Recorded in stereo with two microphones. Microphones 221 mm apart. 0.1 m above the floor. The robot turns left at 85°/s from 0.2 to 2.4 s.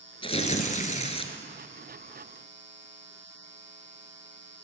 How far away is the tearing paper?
About 1.0 m.